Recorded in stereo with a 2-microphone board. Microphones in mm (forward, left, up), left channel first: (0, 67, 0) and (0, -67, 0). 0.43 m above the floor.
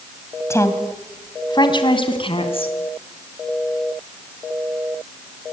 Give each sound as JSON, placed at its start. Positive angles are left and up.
{"t": 0.5, "sound": "a woman speaking", "side_deg": 20, "distance_m": 2.5}